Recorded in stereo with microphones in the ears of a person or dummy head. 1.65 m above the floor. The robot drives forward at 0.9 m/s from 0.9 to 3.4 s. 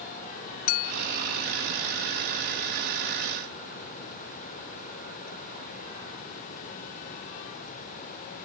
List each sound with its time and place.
0.7 s a clink: 40° left (ahead or behind)